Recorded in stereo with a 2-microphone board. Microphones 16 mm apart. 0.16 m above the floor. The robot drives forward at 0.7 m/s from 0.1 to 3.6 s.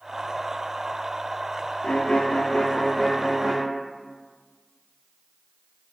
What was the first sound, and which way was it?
A violin, 80° left.